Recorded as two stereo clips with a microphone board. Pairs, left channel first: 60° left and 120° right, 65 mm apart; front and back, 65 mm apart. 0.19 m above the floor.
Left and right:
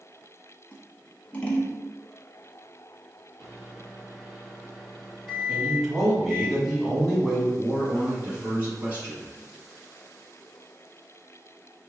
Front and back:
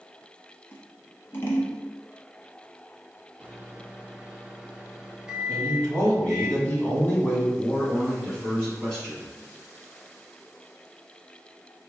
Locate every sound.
0.7 s scissors: 5° left, 0.8 m
3.4 s a microwave: 145° left, 0.8 m
5.5 s a man speaking: 35° right, 1.6 m
7.6 s a man speaking: 70° right, 1.9 m